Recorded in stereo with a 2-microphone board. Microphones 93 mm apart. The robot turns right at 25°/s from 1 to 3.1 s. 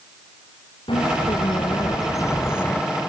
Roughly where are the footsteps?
I don't hear footsteps.